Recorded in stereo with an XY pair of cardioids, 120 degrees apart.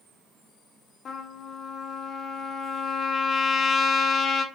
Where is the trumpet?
40° left, 0.8 m.